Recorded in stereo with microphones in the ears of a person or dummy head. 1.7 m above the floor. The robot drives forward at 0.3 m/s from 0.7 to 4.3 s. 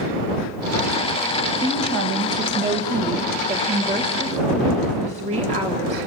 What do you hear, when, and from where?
1.6 s a woman speaking: 60° right (ahead or behind), 1.6 m; by 6.0 s 40° right (ahead or behind), 2 m